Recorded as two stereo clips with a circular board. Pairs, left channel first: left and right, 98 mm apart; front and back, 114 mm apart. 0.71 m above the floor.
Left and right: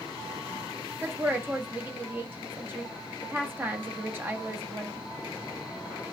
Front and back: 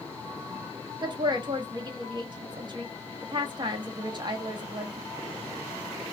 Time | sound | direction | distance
1.0 | a woman speaking | 150° right | 0.7 m